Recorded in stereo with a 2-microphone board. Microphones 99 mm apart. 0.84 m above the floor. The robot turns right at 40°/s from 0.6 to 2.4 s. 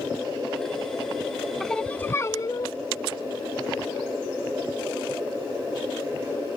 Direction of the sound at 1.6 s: 5° left.